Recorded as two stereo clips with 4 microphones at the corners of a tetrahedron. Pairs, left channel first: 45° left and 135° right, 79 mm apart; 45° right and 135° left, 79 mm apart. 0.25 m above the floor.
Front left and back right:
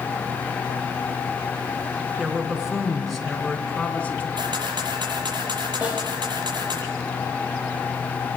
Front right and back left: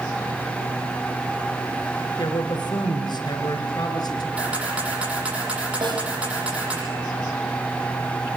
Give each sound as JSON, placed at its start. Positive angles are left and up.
{"t": 2.2, "sound": "a man speaking", "azimuth_deg": -60, "distance_m": 3.5}
{"t": 4.4, "sound": "a camera shutter", "azimuth_deg": -150, "distance_m": 7.5}
{"t": 5.8, "sound": "a snare drum", "azimuth_deg": 150, "distance_m": 9.0}